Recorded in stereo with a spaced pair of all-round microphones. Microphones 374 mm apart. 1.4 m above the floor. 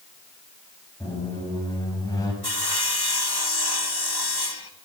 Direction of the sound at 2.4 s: 85° left.